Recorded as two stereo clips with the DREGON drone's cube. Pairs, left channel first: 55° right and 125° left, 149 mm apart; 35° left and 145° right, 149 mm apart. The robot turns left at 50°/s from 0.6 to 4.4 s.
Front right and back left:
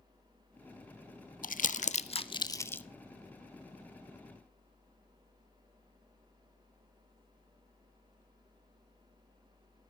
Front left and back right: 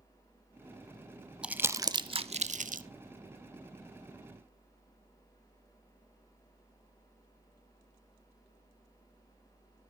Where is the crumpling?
65° right, 0.5 m; by 2.8 s 135° right, 0.5 m.